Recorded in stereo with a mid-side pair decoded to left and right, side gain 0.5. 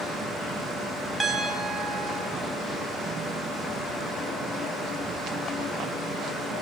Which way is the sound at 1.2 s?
5° right.